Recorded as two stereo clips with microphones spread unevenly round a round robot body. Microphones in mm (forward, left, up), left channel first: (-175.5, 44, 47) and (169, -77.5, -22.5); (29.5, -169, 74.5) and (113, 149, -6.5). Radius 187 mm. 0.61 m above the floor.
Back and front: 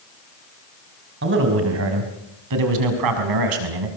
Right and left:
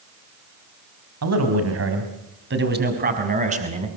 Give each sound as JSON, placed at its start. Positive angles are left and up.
{"t": 1.2, "sound": "a man speaking", "azimuth_deg": 40, "distance_m": 4.5}